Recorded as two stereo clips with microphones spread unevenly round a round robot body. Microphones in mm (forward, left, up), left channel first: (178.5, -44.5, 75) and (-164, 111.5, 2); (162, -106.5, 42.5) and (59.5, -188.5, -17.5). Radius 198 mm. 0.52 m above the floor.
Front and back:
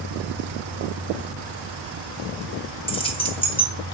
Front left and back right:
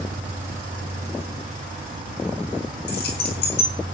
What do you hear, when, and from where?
0.0 s an insect: 140° right, 3 m
2.9 s keys jangling: 55° left, 2.5 m